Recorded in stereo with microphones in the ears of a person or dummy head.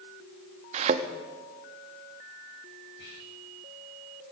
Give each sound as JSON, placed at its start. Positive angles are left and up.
{"t": 0.7, "sound": "a thud", "side_deg": -35, "distance_m": 0.8}
{"t": 3.0, "sound": "whispering", "side_deg": 60, "distance_m": 6.0}